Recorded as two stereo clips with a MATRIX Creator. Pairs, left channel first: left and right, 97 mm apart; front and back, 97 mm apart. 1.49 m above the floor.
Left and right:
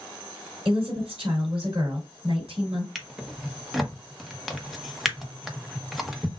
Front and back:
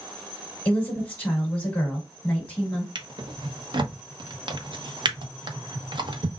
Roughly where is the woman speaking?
Right.